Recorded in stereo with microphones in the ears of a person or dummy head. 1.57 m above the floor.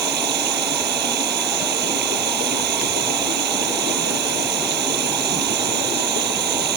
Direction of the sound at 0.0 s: 55° right (ahead or behind).